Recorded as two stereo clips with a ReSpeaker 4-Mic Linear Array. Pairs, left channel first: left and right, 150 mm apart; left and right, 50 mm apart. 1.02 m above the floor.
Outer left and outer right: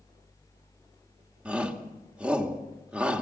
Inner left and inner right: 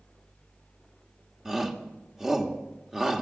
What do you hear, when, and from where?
1.4 s a shout: 5° right (ahead or behind), 1.6 m